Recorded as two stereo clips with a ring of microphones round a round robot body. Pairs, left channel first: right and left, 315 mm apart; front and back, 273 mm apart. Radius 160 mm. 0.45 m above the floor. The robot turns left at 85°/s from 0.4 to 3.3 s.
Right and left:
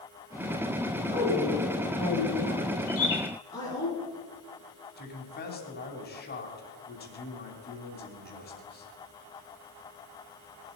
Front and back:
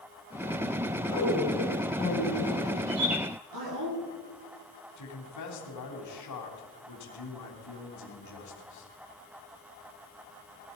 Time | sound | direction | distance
1.1 | a woman speaking | 20° left | 7 m
2.9 | a bird | 125° right | 4.5 m
5.0 | a man speaking | 30° right | 3 m